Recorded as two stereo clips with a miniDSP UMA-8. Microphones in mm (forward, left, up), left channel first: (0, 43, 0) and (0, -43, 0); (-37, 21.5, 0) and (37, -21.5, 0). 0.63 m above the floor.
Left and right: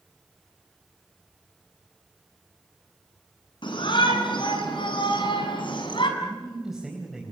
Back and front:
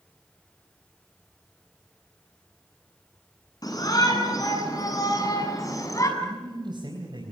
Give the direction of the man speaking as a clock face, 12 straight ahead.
12 o'clock.